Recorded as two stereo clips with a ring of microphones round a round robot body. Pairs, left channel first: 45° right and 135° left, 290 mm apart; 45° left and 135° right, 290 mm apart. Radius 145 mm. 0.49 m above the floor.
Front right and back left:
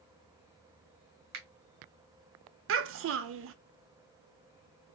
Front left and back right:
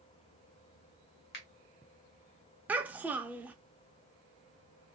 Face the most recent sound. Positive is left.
turn(degrees=145)